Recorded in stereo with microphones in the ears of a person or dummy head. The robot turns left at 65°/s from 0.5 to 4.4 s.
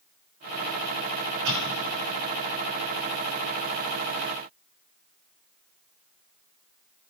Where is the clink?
I don't hear a clink.